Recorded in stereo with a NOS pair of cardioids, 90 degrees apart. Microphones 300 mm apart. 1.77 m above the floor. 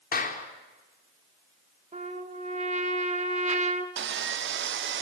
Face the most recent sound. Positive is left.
turn(degrees=-40)